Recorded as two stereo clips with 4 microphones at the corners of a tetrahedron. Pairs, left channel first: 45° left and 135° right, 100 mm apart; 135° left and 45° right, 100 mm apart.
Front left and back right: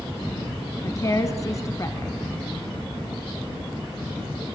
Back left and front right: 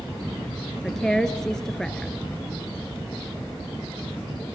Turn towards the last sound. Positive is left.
turn(degrees=55)